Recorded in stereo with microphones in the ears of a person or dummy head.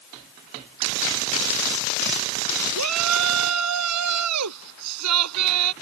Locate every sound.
2.8 s a shout: 90° right